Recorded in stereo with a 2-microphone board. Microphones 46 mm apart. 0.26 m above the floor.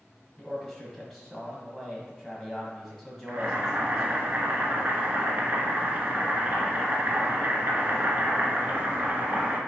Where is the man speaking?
5° left (ahead or behind), 1.5 m.